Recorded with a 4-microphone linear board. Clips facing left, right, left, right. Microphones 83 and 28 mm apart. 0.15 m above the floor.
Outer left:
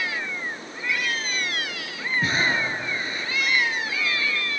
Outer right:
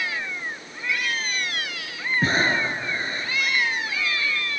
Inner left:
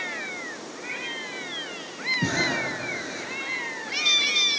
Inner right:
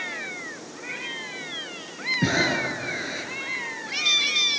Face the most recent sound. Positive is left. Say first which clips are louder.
# outer right 2 dB, inner right 4 dB
turn(degrees=-35)  # may be behind; listen again after turning